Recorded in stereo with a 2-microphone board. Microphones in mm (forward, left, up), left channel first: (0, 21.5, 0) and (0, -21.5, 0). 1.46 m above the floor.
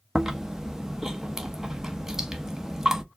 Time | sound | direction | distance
0.1 | chewing | 15° right (ahead or behind) | 0.7 m